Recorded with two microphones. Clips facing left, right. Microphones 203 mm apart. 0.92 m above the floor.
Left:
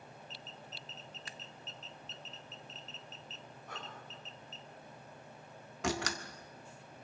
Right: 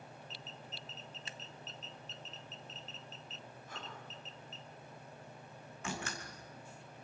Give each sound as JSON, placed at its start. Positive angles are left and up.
{"t": 1.3, "sound": "scissors", "side_deg": -25, "distance_m": 0.8}
{"t": 3.7, "sound": "breathing", "side_deg": 65, "distance_m": 5.0}
{"t": 5.8, "sound": "a door slam", "side_deg": 80, "distance_m": 1.7}